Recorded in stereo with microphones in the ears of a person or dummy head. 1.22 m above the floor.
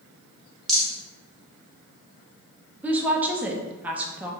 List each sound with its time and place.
0.7 s a rattle: 5° left (ahead or behind), 1.4 m
2.8 s a woman speaking: 5° right (ahead or behind), 0.7 m